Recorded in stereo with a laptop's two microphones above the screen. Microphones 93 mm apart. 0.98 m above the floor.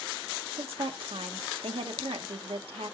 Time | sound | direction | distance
0.5 | a woman speaking | 75° right (ahead or behind) | 1.8 m